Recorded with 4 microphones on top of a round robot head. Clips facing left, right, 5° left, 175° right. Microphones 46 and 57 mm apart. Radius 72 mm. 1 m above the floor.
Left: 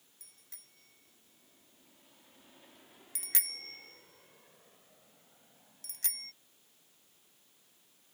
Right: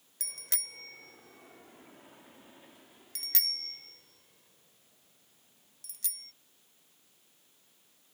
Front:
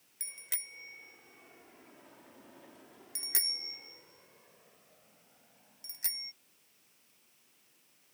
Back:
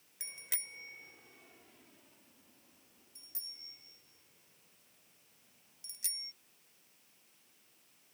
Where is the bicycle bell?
90° right; by 6.3 s 50° left.